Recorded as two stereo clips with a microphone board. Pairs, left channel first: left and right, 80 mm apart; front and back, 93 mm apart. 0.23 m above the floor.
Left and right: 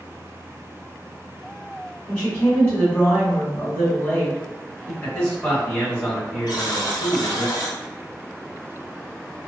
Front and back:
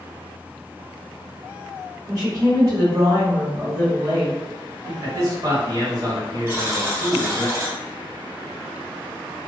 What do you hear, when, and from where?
2.1 s a woman speaking: 150° left, 1.9 m
5.0 s a man speaking: 150° left, 1.8 m
6.5 s a buzzer: 120° left, 1.0 m